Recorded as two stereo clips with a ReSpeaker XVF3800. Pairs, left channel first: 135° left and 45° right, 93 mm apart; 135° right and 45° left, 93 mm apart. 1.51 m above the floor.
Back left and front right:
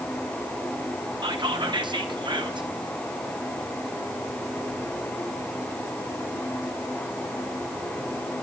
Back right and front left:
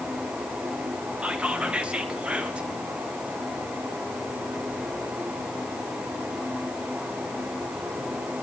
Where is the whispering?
30° right, 0.8 m.